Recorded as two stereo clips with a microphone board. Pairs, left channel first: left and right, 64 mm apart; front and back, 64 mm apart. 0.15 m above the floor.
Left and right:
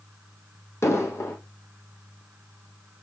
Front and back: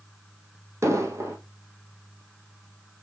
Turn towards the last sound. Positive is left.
turn(degrees=135)